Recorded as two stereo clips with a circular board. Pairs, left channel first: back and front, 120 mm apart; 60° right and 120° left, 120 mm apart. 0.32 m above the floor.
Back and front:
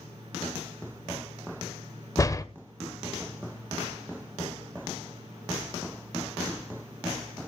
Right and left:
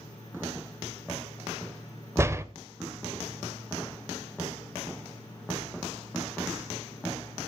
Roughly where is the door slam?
Behind.